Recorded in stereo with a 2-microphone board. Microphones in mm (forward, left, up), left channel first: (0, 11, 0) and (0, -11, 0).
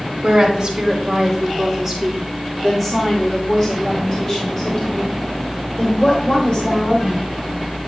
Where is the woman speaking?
40° right (ahead or behind), 2 m; by 7.3 s 50° left (ahead or behind), 3.5 m.